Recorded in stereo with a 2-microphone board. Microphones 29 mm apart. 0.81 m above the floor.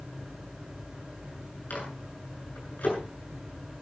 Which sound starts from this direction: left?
A microwave, at 1.7 s.